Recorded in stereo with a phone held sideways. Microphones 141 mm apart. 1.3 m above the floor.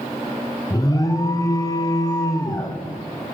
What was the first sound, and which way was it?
An alarm, 25° left (ahead or behind).